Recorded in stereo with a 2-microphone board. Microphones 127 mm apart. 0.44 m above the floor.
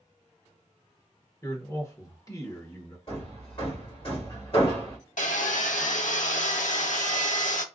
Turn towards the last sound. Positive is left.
turn(degrees=85)